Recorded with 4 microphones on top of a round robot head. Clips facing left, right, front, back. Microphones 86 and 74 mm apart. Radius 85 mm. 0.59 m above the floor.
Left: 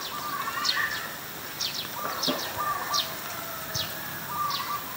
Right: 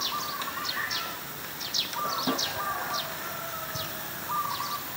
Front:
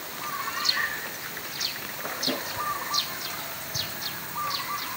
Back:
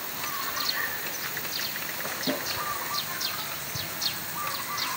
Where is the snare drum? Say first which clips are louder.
Even, back 1 dB; 110° right, 5 m.